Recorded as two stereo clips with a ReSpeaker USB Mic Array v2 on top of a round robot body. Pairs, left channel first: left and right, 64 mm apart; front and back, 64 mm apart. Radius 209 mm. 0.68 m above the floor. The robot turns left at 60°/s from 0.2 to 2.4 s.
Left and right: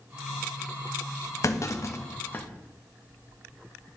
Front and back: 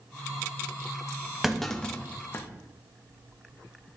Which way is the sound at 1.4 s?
95° left.